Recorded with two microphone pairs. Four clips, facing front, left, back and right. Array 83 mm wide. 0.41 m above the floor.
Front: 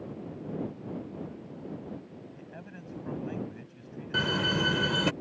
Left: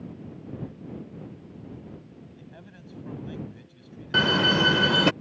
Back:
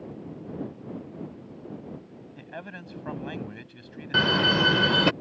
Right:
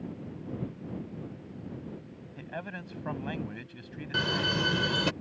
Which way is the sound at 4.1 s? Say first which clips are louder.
Left 8 dB, back 6 dB; 135° left.